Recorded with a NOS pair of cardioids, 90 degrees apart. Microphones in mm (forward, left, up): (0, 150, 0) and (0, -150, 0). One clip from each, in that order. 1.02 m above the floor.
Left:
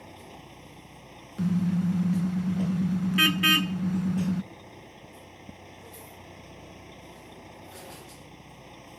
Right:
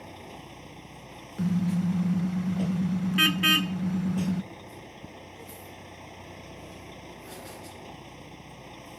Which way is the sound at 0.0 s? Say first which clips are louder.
Right 3 dB; 15° right.